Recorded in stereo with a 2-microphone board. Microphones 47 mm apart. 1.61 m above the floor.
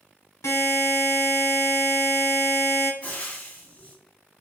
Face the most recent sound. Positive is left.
turn(degrees=25)  # may be behind; listen again after turning